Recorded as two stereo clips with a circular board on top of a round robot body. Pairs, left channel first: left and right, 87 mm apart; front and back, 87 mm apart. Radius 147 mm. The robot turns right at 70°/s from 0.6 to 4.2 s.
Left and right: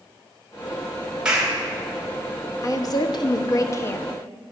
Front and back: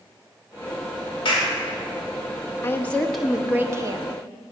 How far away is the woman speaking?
About 1.0 m.